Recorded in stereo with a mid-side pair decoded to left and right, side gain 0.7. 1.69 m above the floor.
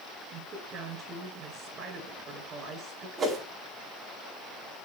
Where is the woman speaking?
40° right, 9.5 m.